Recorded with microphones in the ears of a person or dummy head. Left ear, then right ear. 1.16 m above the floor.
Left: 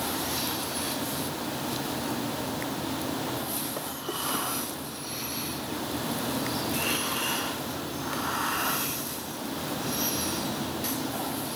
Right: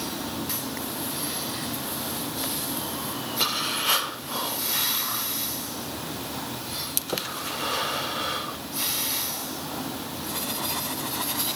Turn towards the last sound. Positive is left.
No sound to turn to.